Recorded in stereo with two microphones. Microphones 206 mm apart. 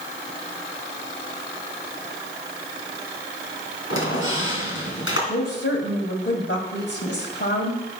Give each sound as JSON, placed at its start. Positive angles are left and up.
{"t": 3.9, "sound": "a squeak", "side_deg": 80, "distance_m": 3.0}
{"t": 5.3, "sound": "a woman speaking", "side_deg": 65, "distance_m": 2.5}